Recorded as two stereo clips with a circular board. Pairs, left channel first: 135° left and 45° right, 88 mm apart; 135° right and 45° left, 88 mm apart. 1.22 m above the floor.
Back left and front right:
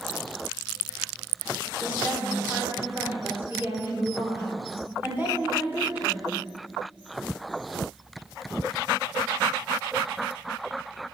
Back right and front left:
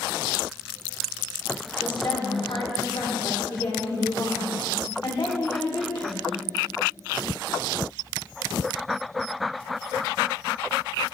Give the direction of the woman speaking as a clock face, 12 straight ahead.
4 o'clock.